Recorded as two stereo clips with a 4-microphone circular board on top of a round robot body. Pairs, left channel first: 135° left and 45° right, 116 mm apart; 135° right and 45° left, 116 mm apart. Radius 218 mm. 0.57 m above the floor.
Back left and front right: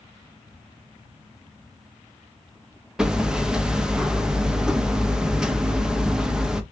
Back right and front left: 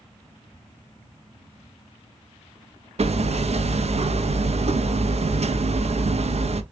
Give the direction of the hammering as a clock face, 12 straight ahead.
11 o'clock.